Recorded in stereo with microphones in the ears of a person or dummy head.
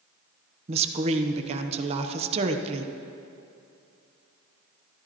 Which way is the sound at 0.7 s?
35° right (ahead or behind).